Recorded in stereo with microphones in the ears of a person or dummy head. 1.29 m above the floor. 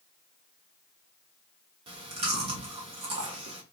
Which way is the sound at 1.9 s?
40° right (ahead or behind).